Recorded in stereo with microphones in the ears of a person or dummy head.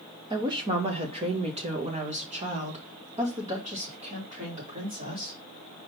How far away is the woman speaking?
About 0.7 m.